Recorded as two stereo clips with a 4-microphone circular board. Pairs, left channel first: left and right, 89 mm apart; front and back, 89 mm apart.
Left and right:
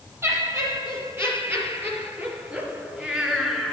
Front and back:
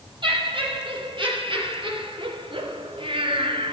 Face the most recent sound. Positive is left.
turn(degrees=175)